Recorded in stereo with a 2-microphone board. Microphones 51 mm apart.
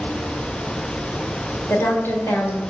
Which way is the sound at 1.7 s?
55° left (ahead or behind).